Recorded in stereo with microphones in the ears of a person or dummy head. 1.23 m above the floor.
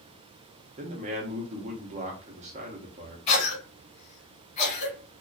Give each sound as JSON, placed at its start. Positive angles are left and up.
{"t": 0.8, "sound": "a man speaking", "side_deg": -35, "distance_m": 0.7}
{"t": 3.3, "sound": "a cough", "side_deg": 40, "distance_m": 1.3}